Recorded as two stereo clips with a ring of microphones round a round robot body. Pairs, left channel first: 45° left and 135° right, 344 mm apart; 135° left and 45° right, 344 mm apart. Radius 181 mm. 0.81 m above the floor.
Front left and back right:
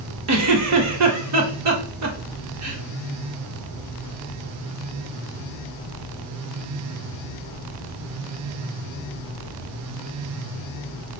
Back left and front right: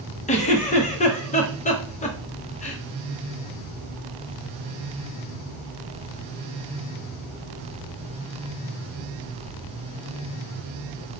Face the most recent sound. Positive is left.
turn(degrees=-160)